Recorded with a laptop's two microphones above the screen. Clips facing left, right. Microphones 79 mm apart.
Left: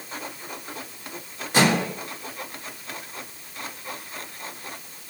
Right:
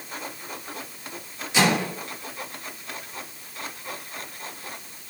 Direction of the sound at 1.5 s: 45° left (ahead or behind).